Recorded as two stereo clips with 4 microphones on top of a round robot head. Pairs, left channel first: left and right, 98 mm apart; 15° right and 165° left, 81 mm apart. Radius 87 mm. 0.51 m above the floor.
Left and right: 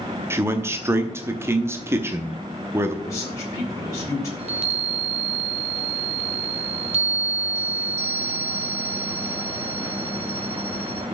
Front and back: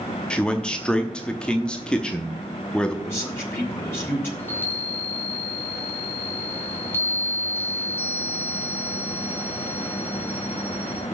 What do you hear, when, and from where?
0.3 s a man speaking: 75° right, 0.9 m
3.0 s a man speaking: 40° left, 1.9 m
4.4 s a chime: 80° right, 1.7 m